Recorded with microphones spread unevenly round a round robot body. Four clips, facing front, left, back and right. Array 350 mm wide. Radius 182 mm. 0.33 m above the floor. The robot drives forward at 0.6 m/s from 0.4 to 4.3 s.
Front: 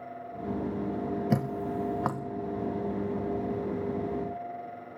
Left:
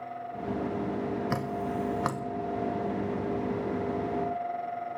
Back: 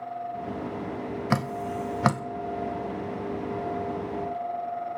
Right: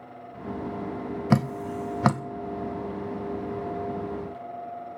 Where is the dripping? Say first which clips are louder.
Right 5 dB, back 5 dB; 90° right, 0.5 m; by 2.2 s 140° right, 0.8 m.